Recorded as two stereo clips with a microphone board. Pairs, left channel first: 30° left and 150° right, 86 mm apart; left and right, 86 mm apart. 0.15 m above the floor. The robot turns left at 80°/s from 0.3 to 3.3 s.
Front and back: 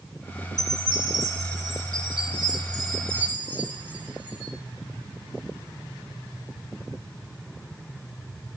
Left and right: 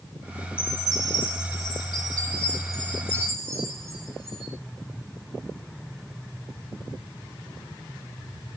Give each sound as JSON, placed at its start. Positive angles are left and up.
{"t": 0.6, "sound": "a chime", "azimuth_deg": -10, "distance_m": 6.0}